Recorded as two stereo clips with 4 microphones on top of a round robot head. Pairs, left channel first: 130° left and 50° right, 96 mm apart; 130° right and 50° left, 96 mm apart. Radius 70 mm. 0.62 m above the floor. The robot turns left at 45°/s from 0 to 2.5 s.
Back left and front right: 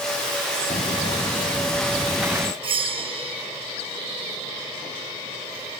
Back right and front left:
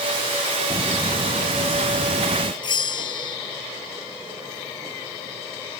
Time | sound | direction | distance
0.7 | footsteps | 100° left | ?
2.6 | a bell | 85° right | ?